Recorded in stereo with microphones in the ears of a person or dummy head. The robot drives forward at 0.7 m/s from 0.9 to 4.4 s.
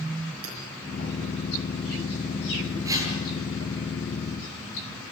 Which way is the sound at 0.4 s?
80° right.